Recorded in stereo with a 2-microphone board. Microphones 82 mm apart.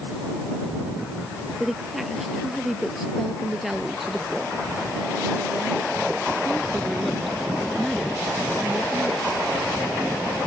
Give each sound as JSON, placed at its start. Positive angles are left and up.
{"t": 1.6, "sound": "a woman speaking", "side_deg": -5}